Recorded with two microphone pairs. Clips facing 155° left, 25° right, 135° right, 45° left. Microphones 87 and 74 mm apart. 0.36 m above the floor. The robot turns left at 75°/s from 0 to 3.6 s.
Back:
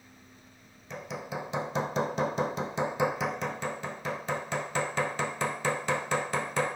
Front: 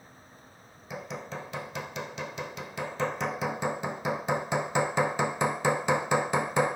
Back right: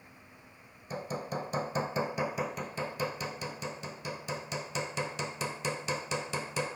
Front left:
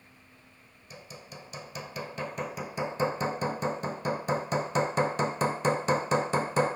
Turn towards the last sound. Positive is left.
turn(degrees=45)